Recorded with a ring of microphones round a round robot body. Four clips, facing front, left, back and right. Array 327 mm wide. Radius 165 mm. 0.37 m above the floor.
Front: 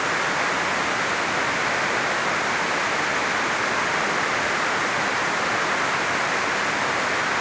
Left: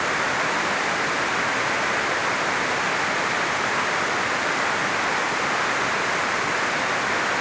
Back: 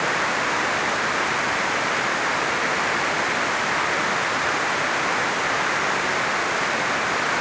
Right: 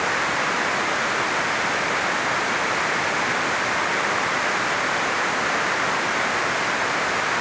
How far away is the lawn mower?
I don't hear a lawn mower.